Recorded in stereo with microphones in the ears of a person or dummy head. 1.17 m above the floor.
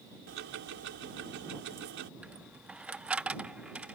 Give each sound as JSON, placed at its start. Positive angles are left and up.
{"t": 0.3, "sound": "ticking", "side_deg": -60}
{"t": 2.2, "sound": "a dropped coin", "side_deg": -5}